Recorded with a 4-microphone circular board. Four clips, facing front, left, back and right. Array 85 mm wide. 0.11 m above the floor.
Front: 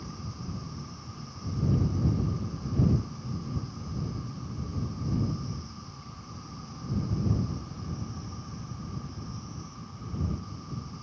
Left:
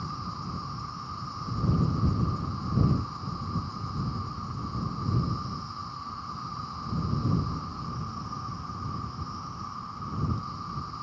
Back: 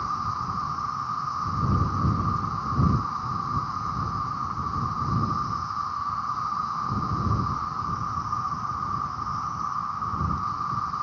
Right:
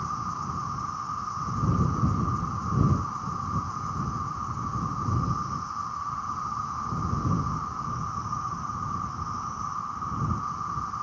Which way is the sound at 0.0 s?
160° right.